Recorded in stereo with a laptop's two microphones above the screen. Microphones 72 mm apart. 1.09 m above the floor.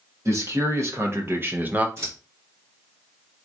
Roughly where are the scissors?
Right.